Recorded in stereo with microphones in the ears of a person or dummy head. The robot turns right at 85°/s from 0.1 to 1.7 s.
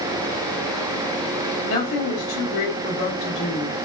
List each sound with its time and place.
1.6 s a woman speaking: 75° left (ahead or behind), 2 m; by 3.9 s 70° left (ahead or behind), 2 m